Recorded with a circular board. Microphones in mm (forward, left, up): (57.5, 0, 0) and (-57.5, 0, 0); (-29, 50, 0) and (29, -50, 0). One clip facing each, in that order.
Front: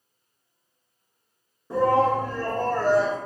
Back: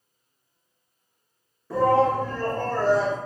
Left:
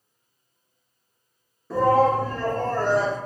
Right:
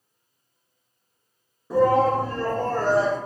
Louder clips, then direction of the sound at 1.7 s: Back 1 dB, even; 20° right.